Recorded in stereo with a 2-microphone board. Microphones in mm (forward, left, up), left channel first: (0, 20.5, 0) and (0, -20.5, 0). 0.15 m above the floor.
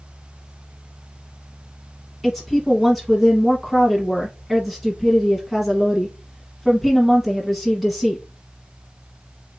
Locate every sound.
2.2 s a woman speaking: centre (ahead or behind), 1.1 m